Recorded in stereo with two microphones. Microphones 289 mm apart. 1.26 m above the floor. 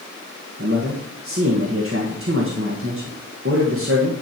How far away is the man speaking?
About 1.7 m.